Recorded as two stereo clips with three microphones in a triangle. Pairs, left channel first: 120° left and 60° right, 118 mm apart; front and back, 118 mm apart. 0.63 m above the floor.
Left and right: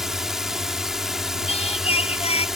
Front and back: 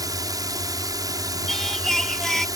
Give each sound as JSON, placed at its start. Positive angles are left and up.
{"t": 0.0, "sound": "a drone", "azimuth_deg": -145}
{"t": 1.5, "sound": "singing", "azimuth_deg": 85}